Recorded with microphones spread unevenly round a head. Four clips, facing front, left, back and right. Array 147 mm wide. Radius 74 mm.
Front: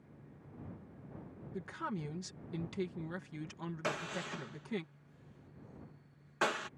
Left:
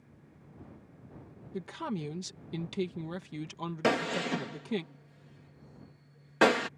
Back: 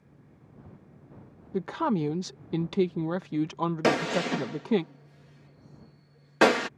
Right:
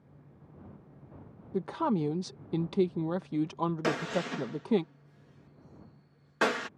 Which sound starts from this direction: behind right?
A man speaking, at 1.5 s.